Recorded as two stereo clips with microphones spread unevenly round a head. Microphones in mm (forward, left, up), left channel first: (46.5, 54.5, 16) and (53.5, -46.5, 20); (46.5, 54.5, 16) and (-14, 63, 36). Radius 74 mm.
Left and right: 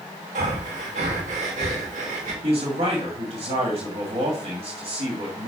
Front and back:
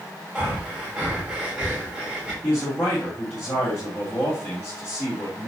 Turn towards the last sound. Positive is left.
turn(degrees=-60)